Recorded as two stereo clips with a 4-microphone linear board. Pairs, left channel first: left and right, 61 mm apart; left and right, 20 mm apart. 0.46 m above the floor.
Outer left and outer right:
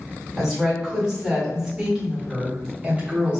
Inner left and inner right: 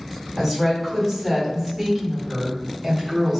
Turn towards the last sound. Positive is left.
turn(degrees=-20)  # may be behind; listen again after turning